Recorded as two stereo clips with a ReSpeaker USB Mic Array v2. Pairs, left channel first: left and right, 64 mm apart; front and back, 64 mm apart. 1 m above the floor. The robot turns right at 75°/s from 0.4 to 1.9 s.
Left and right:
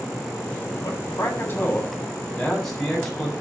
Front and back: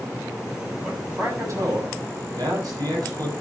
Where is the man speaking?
95° left, 7 m; by 3.3 s 175° left, 7 m.